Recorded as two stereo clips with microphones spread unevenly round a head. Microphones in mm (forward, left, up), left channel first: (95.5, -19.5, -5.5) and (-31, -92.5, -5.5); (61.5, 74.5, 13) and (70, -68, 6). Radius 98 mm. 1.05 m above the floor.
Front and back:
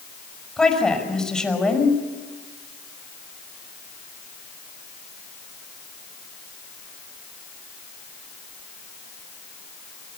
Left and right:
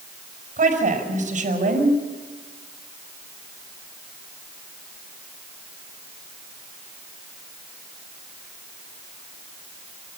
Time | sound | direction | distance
0.6 | a woman speaking | 55° right | 5.5 m